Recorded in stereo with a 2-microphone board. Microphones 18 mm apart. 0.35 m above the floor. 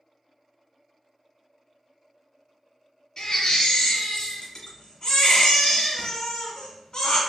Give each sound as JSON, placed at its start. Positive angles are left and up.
{"t": 3.2, "sound": "a baby crying", "side_deg": 55, "distance_m": 1.6}